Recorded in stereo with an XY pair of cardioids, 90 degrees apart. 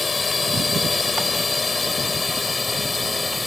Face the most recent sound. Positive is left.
turn(degrees=25)